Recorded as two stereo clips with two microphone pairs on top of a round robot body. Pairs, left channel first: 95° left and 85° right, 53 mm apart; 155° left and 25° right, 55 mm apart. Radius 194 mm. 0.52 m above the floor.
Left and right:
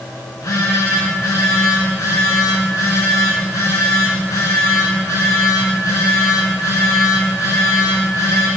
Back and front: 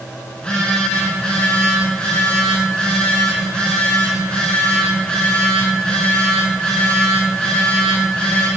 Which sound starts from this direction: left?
A phone buzzing, at 0.3 s.